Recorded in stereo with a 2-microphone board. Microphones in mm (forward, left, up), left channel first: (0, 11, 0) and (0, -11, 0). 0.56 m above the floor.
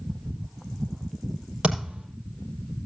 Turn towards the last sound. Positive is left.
turn(degrees=-55)  # may be behind; listen again after turning